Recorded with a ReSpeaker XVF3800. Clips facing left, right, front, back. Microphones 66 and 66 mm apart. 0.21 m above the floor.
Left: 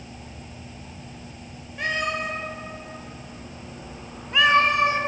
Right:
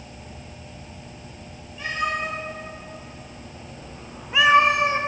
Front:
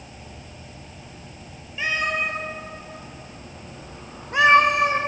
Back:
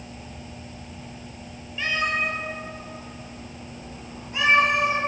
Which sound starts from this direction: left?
A cat meowing, at 1.8 s.